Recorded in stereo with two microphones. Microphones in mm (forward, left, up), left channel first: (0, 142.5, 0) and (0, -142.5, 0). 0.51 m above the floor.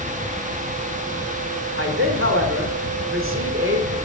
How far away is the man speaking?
About 1.2 m.